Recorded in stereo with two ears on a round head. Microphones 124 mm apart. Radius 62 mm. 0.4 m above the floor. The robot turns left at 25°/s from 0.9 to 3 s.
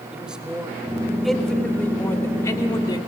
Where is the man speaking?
170° right, 1.5 m; by 3.0 s 135° left, 1.5 m.